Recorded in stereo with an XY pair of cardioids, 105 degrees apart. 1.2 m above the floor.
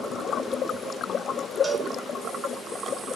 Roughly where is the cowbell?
Ahead right.